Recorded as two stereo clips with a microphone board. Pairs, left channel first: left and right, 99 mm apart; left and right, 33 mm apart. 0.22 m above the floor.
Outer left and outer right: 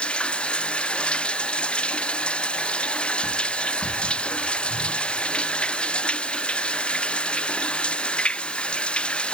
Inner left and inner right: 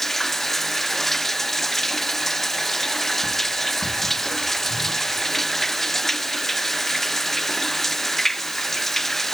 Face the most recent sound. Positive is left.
turn(degrees=10)  # may be behind; listen again after turning